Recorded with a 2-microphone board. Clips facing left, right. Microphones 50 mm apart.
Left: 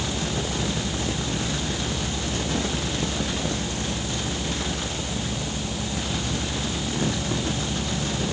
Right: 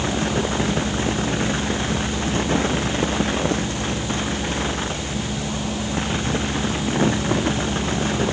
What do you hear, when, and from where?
Only background noise.